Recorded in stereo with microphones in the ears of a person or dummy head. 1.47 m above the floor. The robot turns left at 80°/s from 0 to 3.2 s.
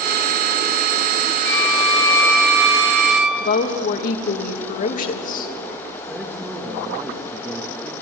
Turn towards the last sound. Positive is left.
turn(degrees=0)  # may be behind; listen again after turning